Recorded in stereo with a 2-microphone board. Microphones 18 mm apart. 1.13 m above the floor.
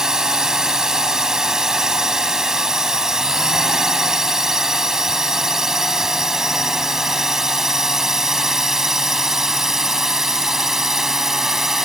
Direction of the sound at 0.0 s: 25° right (ahead or behind).